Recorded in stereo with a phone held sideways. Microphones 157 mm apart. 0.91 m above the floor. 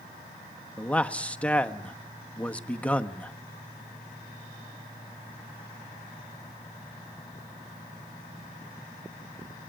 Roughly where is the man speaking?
Centre.